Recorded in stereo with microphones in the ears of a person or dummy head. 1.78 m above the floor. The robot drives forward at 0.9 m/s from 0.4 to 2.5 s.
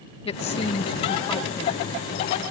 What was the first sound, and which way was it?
A woman speaking, 30° left (ahead or behind).